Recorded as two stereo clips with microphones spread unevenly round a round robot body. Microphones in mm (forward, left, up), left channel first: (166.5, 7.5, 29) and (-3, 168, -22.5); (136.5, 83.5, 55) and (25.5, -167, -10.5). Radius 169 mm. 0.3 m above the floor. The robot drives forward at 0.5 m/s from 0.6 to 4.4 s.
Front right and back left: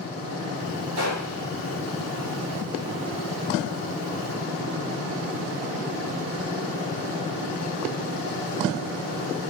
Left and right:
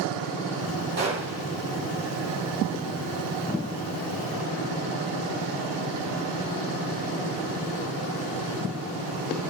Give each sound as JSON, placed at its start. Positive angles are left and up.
{"t": 1.0, "sound": "a gunshot", "azimuth_deg": 180, "distance_m": 6.5}